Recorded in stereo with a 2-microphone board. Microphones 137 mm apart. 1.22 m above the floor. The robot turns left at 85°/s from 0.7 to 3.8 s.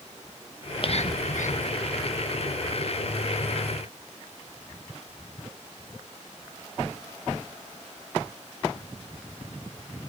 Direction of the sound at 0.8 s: 135° left.